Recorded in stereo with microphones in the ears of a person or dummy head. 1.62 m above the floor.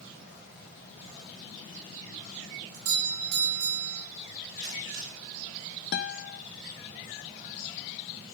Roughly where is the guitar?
Left.